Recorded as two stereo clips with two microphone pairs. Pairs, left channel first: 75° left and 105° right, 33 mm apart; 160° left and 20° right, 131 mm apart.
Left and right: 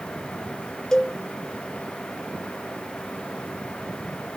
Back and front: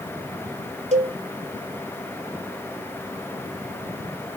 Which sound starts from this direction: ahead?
A cowbell, at 0.9 s.